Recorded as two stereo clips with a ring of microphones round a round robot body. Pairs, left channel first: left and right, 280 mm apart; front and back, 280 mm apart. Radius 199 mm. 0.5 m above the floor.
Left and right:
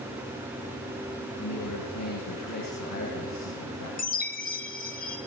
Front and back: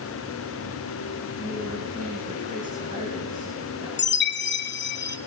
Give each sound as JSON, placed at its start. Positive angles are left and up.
{"t": 1.4, "sound": "a man speaking", "azimuth_deg": 115, "distance_m": 6.0}
{"t": 4.0, "sound": "a chime", "azimuth_deg": 35, "distance_m": 1.7}